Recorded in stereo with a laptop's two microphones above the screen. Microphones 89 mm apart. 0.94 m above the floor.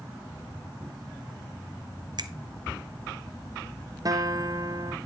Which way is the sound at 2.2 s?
55° right (ahead or behind).